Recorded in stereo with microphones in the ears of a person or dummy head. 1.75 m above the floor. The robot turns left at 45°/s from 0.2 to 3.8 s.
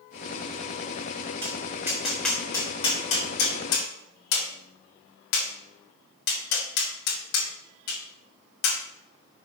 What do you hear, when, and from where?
1.4 s tapping: 30° right (ahead or behind), 3.5 m; by 8.8 s 70° left (ahead or behind), 3.5 m